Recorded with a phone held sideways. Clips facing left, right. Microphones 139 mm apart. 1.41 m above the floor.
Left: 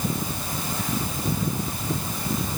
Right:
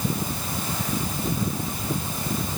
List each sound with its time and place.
Only background noise.